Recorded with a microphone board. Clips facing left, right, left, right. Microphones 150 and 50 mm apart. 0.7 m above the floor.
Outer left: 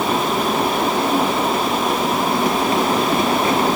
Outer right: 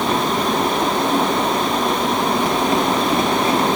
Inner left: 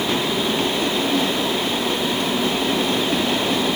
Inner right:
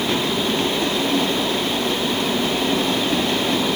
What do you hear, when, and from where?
Only background noise.